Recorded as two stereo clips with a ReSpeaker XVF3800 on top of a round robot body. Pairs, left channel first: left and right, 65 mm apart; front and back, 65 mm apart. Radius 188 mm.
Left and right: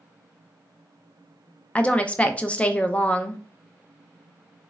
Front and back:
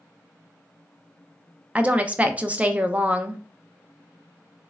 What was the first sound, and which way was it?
A woman speaking, 135° left.